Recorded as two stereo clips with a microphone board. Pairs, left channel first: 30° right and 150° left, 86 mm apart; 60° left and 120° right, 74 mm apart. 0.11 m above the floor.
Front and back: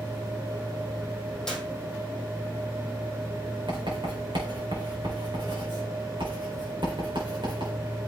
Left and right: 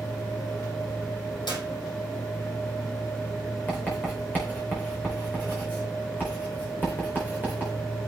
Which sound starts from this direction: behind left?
Writing, at 3.7 s.